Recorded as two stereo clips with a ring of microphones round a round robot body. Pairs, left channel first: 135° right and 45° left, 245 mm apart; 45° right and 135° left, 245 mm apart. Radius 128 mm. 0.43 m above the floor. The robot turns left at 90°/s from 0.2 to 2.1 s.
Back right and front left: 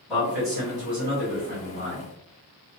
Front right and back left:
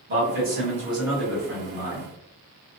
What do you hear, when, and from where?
0.1 s a man speaking: 140° left, 1.7 m; by 2.1 s 30° right, 1.7 m